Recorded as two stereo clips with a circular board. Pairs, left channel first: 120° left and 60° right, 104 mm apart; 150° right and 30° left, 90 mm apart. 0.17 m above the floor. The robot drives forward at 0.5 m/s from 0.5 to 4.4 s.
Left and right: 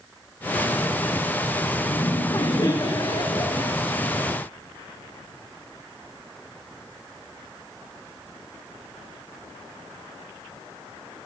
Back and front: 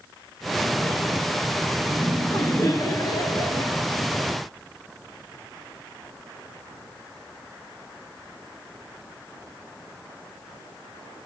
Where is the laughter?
160° left, 1.8 m; by 3.8 s 170° left, 2.5 m.